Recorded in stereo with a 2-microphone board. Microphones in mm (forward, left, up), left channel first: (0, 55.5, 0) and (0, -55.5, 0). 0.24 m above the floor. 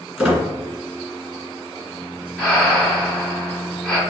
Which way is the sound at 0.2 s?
10° right (ahead or behind).